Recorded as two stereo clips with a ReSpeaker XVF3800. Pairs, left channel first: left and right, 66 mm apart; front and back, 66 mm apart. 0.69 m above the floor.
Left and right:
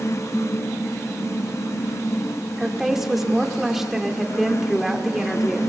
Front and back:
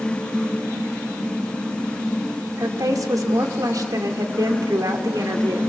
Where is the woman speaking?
175° right, 2 m.